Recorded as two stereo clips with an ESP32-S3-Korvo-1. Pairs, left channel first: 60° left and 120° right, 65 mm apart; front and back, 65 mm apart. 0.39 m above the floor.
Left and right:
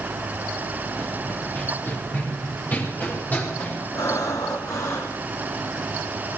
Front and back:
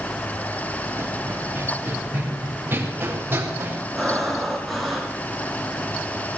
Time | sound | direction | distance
1.0 | running footsteps | 125° left | 4 m
4.0 | breathing | 85° left | 4 m